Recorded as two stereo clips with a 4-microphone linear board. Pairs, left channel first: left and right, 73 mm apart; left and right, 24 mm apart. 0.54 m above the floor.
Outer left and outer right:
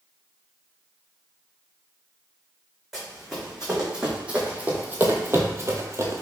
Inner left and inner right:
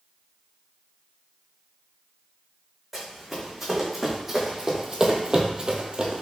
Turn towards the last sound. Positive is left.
turn(degrees=-40)  # may be behind; listen again after turning